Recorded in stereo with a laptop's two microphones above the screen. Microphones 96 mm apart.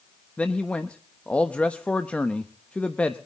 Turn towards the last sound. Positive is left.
turn(degrees=15)  # may be behind; listen again after turning